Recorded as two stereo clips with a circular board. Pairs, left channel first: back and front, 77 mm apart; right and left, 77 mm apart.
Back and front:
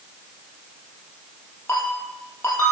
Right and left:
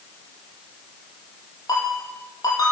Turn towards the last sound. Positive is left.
turn(degrees=-120)